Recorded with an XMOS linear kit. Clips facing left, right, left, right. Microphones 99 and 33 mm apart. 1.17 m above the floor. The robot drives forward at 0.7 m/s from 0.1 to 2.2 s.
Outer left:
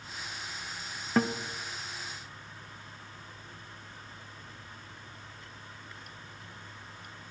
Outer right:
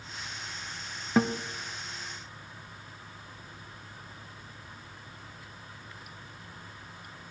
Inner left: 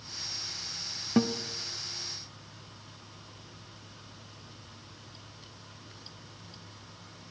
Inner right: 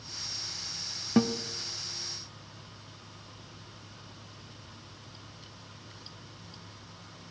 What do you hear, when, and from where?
1.2 s a guitar: 5° right (ahead or behind), 0.7 m